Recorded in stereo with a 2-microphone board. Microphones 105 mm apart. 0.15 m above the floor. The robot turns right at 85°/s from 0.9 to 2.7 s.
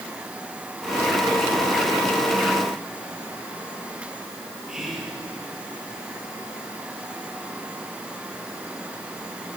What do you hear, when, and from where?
4.7 s whispering: 5° right (ahead or behind), 3 m